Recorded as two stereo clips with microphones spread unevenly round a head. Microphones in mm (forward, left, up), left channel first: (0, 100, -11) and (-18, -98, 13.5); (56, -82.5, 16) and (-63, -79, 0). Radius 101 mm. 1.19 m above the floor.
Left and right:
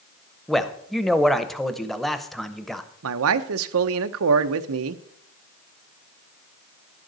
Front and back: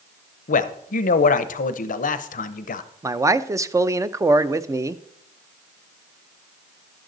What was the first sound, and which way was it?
A man speaking, straight ahead.